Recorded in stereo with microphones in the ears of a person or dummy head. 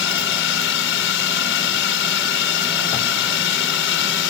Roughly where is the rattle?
No rattle in this recording.